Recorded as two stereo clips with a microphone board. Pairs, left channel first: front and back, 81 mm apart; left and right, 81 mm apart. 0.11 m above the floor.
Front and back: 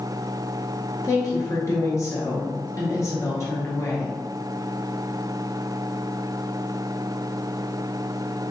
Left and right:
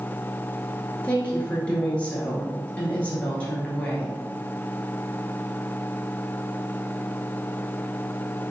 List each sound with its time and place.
1.0 s a woman speaking: 25° left, 1.7 m